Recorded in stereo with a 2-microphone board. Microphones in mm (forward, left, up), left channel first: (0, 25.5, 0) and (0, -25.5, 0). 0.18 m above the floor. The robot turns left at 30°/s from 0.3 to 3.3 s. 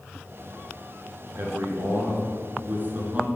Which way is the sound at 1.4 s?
90° right.